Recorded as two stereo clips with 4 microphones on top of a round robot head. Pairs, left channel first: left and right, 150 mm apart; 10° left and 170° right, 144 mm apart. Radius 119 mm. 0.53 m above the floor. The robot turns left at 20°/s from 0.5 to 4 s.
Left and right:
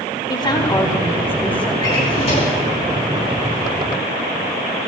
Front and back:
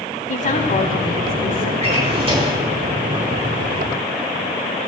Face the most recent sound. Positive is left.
turn(degrees=110)